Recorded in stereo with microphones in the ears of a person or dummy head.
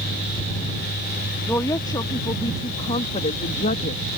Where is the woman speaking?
15° left (ahead or behind); by 4.2 s 50° left (ahead or behind).